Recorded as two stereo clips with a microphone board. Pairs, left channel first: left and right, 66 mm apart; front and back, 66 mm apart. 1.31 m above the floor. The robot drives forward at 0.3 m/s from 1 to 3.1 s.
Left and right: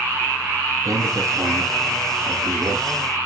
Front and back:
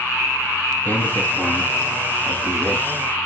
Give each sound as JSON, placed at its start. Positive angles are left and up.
{"t": 0.8, "sound": "a man speaking", "azimuth_deg": -60, "distance_m": 1.0}